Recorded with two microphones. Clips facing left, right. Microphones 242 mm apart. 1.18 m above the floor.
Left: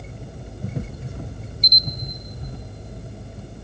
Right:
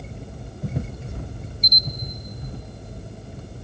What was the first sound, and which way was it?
A camera shutter, 55° right (ahead or behind).